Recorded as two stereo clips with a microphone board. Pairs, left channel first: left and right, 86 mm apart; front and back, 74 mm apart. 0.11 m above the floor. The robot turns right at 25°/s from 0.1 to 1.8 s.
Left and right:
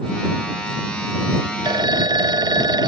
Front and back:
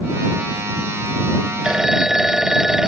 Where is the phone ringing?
100° right; by 2.9 s 95° right.